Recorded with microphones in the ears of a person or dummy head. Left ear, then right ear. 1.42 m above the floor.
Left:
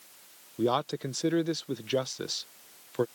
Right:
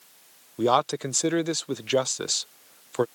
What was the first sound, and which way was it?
A man speaking, 35° right (ahead or behind).